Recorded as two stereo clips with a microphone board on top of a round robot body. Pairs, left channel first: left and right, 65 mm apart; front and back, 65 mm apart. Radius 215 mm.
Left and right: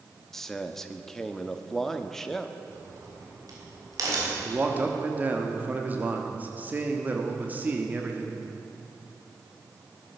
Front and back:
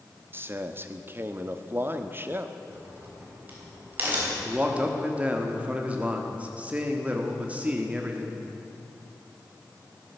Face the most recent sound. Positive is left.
turn(degrees=-130)